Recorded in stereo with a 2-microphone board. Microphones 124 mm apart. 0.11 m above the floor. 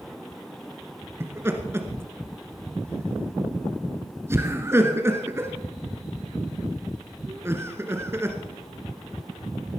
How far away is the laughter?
About 1.3 m.